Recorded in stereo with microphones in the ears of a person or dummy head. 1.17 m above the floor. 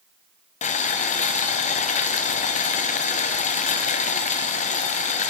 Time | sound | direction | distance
0.6 | boiling | 35° left (ahead or behind) | 0.6 m